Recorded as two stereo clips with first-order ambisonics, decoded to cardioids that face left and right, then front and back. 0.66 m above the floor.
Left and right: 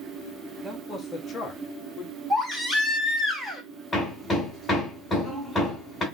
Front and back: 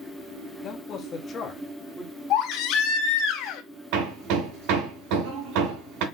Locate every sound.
0.6 s a man speaking: 15° left, 1.1 m; by 2.1 s 90° left, 1.1 m
2.3 s a baby crying: 5° right, 1.4 m
3.9 s hammering: 175° left, 2.0 m